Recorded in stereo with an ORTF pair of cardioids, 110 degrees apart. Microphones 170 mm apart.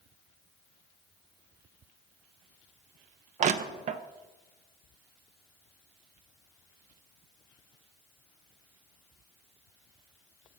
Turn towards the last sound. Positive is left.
turn(degrees=-45)